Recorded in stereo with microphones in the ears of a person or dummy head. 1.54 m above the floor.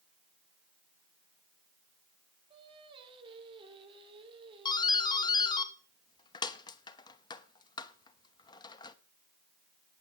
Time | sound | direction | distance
2.5 | singing | 30° right (ahead or behind) | 3.5 m
4.7 | a doorbell | 20° left (ahead or behind) | 1.0 m